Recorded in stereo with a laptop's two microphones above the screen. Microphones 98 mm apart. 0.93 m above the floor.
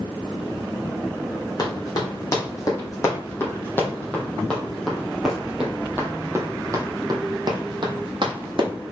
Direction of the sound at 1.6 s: 40° left (ahead or behind).